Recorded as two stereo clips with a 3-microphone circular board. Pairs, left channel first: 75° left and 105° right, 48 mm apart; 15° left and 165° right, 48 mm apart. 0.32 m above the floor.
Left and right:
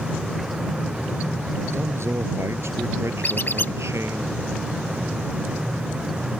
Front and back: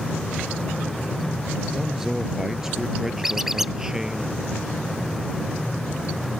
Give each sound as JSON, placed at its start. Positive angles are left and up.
{"t": 1.7, "sound": "a man speaking", "azimuth_deg": -80}
{"t": 3.2, "sound": "a squeak", "azimuth_deg": 115}